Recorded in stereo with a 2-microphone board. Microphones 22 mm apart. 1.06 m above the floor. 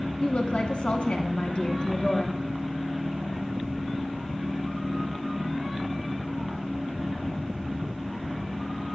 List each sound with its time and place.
0.2 s a woman speaking: 75° left (ahead or behind), 1.9 m